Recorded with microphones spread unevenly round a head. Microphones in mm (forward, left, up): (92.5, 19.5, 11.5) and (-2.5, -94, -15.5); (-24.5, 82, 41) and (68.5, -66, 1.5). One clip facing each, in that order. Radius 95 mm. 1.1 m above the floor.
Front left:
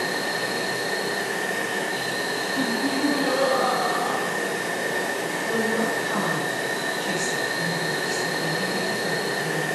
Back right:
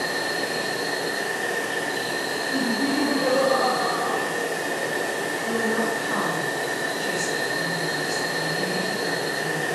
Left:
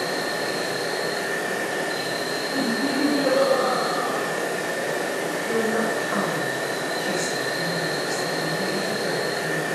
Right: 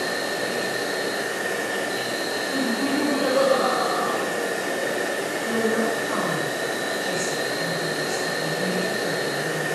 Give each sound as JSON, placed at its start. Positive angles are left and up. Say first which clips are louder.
{"t": 0.0, "sound": "an insect", "louder": "even, even", "azimuth_deg": -130, "distance_m": 0.9}
{"t": 2.5, "sound": "laughter", "louder": "back right 2 dB, even", "azimuth_deg": -115, "distance_m": 1.2}
{"t": 5.4, "sound": "a woman speaking", "louder": "even, right 1 dB", "azimuth_deg": -160, "distance_m": 1.2}